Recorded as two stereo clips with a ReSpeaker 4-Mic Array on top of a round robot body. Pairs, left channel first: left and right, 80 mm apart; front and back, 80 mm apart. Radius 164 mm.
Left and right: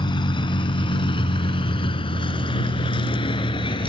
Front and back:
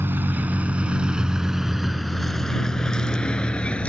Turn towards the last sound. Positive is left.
turn(degrees=75)